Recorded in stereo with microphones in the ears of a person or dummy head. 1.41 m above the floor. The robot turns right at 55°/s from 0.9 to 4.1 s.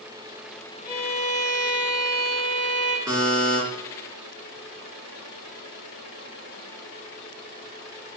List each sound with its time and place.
0.9 s a violin: 20° left, 0.6 m; by 3.0 s 135° left, 0.6 m
3.1 s a buzzer: 30° right (ahead or behind), 1.5 m; by 3.6 s 40° right (ahead or behind), 1.5 m